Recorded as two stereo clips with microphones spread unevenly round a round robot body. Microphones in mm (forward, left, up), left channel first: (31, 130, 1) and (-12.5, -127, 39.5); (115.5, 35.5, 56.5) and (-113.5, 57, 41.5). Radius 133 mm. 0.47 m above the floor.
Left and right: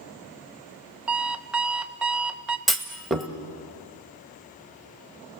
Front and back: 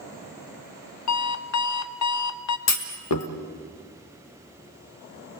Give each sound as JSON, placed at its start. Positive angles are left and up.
{"t": 1.1, "sound": "an alarm clock", "azimuth_deg": -10, "distance_m": 0.8}
{"t": 2.7, "sound": "a clunk", "azimuth_deg": -5, "distance_m": 1.4}